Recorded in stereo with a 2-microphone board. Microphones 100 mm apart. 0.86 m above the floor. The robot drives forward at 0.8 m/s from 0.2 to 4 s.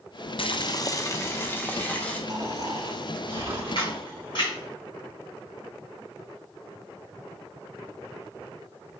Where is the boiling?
60° left (ahead or behind), 0.6 m; by 2.2 s 15° left (ahead or behind), 1.8 m.